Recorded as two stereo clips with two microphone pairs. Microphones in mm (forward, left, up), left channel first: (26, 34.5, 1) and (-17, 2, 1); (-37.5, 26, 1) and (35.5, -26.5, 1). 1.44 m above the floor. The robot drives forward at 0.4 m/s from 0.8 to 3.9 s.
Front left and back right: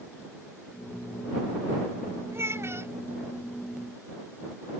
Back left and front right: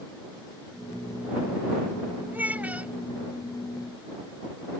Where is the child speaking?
105° right; by 3.0 s 110° right.